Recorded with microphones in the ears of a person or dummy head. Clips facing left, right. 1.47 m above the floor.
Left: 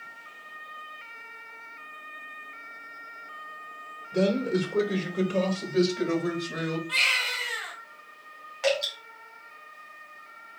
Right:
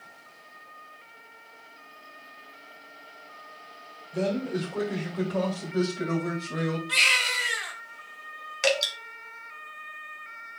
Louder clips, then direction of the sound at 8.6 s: Even; 45° right (ahead or behind).